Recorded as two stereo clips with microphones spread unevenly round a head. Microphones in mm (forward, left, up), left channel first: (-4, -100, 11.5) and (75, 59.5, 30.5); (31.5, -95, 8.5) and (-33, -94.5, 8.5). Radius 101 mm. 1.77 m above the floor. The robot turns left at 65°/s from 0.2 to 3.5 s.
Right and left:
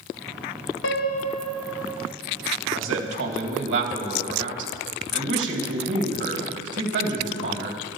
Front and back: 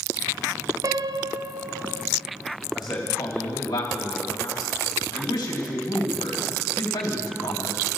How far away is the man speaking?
About 3 m.